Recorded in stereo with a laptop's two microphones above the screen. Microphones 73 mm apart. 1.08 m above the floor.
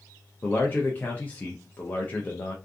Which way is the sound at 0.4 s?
25° left (ahead or behind).